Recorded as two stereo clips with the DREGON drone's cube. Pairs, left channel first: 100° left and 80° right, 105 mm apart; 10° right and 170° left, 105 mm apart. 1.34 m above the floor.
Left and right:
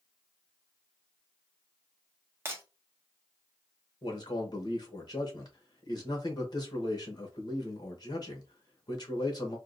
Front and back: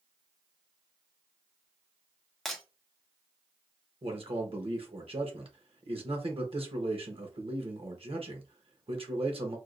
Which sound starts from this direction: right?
Breaking glass, at 2.5 s.